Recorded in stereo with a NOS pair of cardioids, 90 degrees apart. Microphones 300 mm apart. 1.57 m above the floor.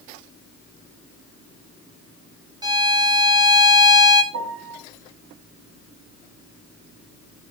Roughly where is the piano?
Ahead right.